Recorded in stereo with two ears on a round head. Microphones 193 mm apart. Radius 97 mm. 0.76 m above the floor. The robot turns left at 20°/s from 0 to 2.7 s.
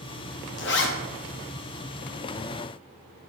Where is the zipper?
55° left (ahead or behind), 1.0 m.